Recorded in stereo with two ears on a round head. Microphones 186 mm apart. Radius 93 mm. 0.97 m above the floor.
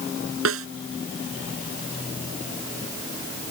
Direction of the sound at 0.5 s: 70° right (ahead or behind).